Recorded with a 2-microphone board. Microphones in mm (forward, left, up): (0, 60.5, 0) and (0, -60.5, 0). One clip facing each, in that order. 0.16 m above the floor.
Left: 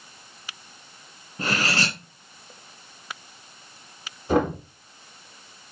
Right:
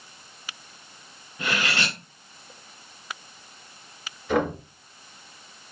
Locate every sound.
1.4 s cutlery clinking: 35° left (ahead or behind), 1.0 m
4.3 s knocking: 30° left (ahead or behind), 2.5 m